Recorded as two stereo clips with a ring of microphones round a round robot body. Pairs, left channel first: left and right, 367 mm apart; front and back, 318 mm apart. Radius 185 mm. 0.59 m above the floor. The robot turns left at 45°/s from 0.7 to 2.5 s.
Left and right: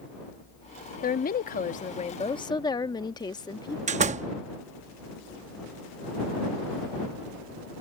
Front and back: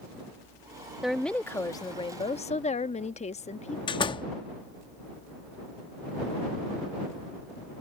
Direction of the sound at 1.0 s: 95° left.